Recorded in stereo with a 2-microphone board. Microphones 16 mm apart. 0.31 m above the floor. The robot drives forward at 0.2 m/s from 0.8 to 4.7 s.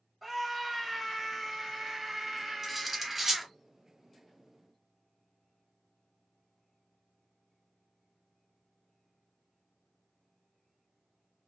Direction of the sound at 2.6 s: 15° right (ahead or behind).